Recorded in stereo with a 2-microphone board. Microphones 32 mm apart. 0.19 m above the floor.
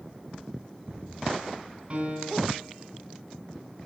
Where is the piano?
40° right (ahead or behind), 1.9 m.